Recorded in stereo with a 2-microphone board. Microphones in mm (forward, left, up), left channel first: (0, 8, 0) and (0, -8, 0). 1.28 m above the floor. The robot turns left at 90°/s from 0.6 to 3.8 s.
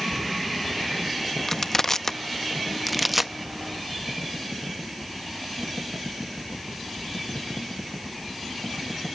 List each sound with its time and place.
1.5 s crushing: 20° left (ahead or behind), 0.6 m; by 3.3 s 15° right (ahead or behind), 0.6 m